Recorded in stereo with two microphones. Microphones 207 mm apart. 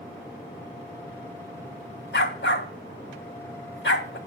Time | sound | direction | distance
2.1 | a dog barking | 60° left (ahead or behind) | 1.1 m